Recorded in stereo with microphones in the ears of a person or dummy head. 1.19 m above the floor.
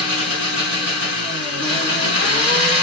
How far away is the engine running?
About 2.5 m.